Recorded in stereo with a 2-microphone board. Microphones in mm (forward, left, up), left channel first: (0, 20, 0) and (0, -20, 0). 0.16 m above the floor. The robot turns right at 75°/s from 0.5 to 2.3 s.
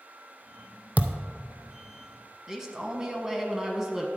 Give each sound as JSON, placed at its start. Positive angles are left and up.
{"t": 1.0, "sound": "a thud", "side_deg": -45, "distance_m": 0.7}
{"t": 2.5, "sound": "a man speaking", "side_deg": -15, "distance_m": 1.0}